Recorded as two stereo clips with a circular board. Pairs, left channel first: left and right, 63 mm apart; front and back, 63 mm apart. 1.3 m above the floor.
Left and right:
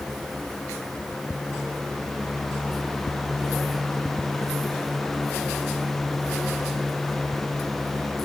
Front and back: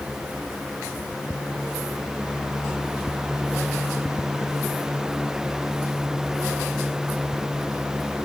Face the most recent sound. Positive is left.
No sound to turn to.